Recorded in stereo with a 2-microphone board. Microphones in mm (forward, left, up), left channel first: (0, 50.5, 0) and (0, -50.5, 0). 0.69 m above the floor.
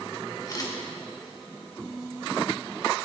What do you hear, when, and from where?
0.5 s a camera shutter: 35° left (ahead or behind), 2.5 m